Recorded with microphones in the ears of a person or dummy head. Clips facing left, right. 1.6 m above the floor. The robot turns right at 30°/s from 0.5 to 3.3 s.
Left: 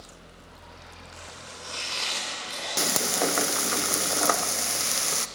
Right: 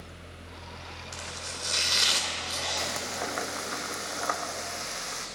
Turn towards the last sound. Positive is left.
turn(degrees=55)  # may be behind; listen again after turning